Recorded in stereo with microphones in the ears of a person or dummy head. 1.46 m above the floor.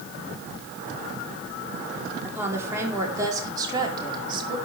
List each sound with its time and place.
2.2 s a woman speaking: 15° right (ahead or behind), 5 m; by 4.6 s 30° right (ahead or behind), 4.5 m